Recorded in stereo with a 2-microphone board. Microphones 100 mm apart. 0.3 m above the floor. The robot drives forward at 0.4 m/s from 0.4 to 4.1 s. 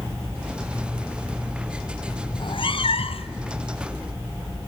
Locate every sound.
2.3 s a cat meowing: 55° left (ahead or behind), 0.9 m; by 3.3 s 75° left (ahead or behind), 0.7 m